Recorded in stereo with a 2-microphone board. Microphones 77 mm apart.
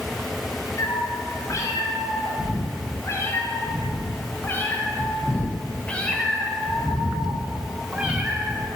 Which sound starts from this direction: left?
A cat meowing, at 0.8 s.